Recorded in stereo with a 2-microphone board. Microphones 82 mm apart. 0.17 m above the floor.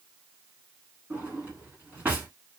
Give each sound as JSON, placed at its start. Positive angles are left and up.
{"t": 1.1, "sound": "a drawer", "side_deg": -20, "distance_m": 1.0}